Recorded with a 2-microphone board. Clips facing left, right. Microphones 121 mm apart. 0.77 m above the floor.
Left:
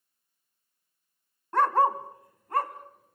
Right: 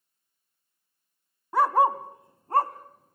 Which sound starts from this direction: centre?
A dog barking, at 1.5 s.